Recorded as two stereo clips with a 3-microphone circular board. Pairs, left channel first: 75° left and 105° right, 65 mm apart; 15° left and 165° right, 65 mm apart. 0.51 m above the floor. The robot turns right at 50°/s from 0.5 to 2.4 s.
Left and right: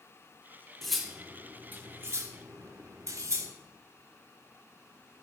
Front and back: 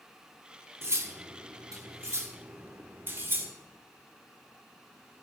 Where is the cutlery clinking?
160° left, 0.7 m; by 3.5 s 125° right, 0.7 m.